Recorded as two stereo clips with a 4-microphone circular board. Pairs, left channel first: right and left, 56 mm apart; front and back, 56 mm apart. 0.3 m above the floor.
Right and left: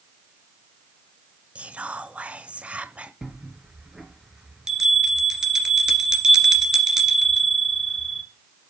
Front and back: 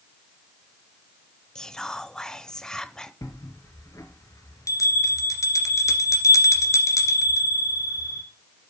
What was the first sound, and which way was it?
Whispering, 60° left.